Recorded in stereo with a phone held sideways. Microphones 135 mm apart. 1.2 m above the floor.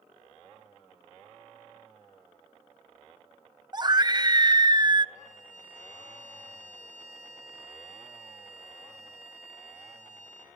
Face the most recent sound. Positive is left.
turn(degrees=85)